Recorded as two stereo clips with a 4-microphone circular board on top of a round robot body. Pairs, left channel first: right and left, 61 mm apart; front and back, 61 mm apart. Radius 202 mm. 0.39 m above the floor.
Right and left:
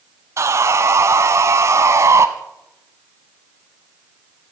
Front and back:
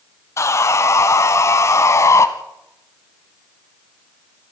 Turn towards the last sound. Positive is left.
turn(degrees=45)